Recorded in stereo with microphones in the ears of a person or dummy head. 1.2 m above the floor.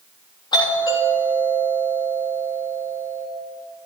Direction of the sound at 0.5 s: 25° left (ahead or behind).